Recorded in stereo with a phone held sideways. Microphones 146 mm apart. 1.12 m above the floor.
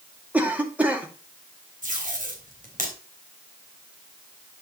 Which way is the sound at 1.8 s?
60° right (ahead or behind).